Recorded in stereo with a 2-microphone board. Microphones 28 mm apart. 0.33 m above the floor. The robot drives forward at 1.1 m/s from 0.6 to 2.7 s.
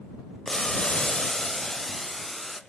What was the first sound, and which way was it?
Boiling, 25° left (ahead or behind).